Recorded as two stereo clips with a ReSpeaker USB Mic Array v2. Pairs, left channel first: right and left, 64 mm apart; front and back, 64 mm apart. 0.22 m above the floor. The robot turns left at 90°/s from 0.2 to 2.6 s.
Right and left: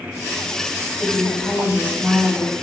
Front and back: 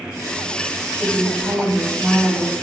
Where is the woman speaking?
145° left, 1.4 m; by 2.5 s 10° left, 1.4 m.